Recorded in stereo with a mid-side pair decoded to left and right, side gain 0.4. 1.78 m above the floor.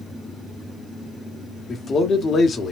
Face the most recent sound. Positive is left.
turn(degrees=55)